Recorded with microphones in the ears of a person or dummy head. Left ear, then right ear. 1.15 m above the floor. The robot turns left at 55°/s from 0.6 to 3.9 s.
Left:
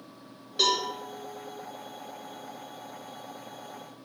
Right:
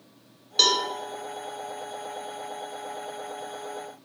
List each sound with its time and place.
0.6 s a cowbell: 35° right (ahead or behind), 0.8 m; by 0.9 s 45° right (ahead or behind), 0.8 m